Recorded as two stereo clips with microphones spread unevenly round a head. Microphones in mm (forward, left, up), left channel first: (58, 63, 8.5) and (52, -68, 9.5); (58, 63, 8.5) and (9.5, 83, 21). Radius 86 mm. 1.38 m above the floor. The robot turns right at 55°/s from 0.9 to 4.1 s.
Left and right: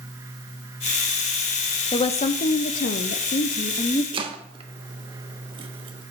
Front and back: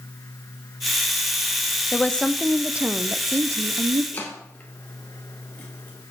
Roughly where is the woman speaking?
Ahead left.